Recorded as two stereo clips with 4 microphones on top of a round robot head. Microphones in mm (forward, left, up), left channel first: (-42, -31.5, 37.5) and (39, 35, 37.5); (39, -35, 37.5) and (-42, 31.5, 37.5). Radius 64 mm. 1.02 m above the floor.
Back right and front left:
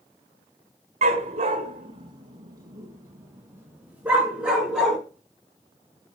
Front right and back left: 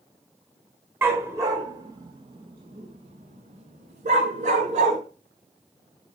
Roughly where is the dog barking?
Left.